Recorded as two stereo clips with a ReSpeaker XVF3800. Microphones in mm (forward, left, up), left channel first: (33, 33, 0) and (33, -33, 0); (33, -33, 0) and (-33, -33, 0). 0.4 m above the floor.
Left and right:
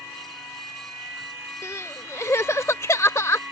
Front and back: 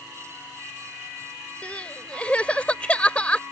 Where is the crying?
65° left.